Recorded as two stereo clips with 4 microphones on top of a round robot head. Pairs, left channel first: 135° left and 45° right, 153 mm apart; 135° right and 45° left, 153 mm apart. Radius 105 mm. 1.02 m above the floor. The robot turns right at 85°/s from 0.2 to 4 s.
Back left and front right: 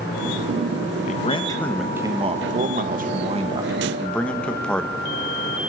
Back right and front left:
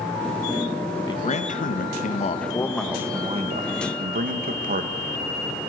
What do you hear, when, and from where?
1.1 s a man speaking: 165° left, 1.6 m; by 5.0 s 55° left, 1.6 m